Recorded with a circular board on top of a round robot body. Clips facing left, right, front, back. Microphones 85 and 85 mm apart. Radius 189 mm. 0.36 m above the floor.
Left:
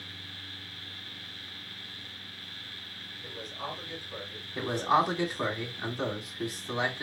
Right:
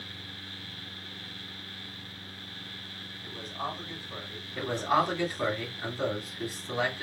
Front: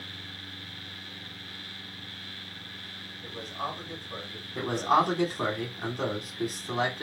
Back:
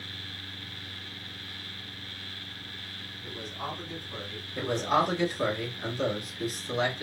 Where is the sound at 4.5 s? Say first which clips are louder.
Left 1 dB, front 2 dB; 20° left, 2.5 m.